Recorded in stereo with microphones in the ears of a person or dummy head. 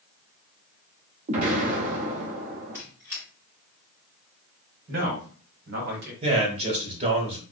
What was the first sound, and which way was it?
An explosion, 45° right (ahead or behind).